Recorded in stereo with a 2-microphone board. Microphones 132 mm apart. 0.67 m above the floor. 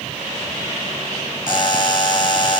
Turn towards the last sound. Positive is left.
turn(degrees=35)  # may be behind; listen again after turning